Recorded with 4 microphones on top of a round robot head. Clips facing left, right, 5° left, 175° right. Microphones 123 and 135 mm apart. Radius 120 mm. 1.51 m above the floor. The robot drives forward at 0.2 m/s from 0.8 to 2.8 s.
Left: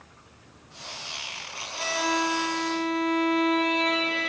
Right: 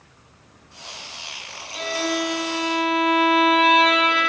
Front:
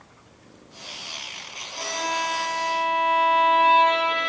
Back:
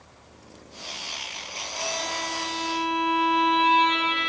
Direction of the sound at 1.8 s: 55° right.